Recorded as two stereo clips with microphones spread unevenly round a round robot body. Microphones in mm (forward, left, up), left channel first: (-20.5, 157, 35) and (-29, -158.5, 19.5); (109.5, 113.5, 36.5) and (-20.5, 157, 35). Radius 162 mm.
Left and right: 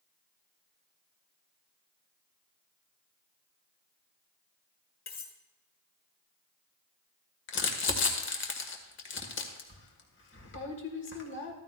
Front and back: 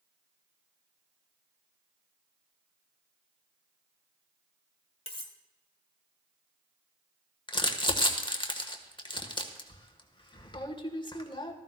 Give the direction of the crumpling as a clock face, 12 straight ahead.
11 o'clock.